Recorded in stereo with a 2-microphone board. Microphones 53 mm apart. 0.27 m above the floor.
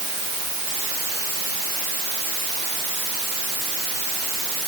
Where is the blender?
I don't hear a blender.